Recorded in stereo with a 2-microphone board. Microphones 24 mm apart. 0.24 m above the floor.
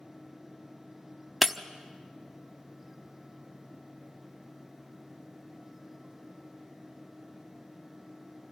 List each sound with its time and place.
1.4 s breaking glass: 10° right (ahead or behind), 0.8 m